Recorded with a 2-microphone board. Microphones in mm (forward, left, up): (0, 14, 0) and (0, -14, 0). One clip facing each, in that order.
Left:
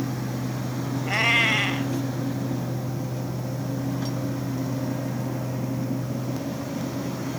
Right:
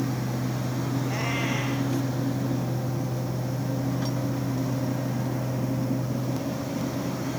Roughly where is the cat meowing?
Left.